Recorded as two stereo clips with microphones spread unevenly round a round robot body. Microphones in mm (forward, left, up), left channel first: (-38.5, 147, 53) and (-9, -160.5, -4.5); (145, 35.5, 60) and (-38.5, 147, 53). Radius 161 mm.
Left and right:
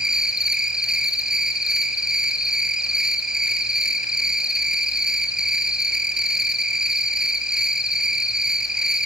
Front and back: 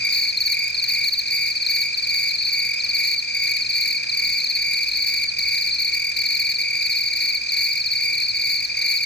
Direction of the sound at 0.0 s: 5° left.